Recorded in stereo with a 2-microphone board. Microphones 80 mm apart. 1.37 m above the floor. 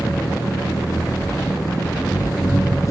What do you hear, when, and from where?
0.0 s an engine running: 45° left (ahead or behind)